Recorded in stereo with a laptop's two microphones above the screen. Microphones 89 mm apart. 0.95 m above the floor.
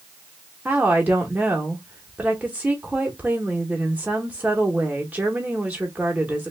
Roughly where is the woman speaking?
Centre.